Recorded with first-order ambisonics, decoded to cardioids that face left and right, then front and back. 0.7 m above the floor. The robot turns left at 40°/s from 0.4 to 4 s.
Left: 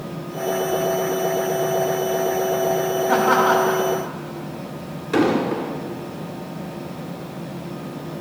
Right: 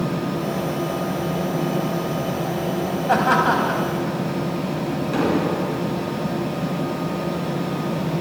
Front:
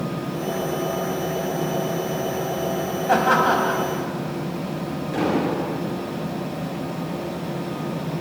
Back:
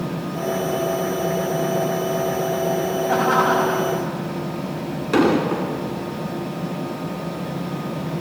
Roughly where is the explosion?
Behind.